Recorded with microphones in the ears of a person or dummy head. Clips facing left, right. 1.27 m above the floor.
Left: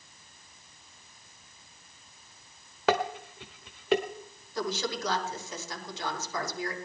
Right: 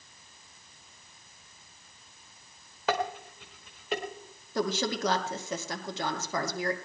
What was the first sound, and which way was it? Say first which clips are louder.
Dishes clattering: left 3 dB; 60° left (ahead or behind).